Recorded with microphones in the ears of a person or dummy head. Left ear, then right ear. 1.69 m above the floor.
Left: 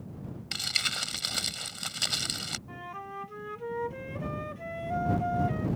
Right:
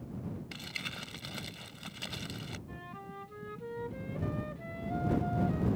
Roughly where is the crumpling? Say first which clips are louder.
Left 12 dB; left.